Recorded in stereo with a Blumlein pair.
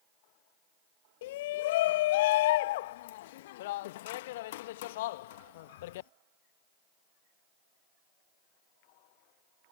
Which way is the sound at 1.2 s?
55° left.